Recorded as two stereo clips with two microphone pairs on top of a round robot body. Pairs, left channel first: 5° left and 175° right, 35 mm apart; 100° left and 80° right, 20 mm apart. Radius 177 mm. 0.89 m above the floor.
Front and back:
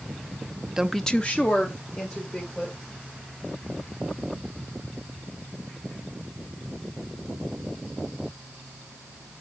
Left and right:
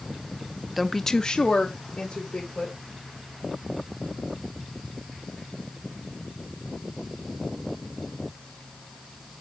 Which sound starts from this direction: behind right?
A woman speaking, at 0.8 s.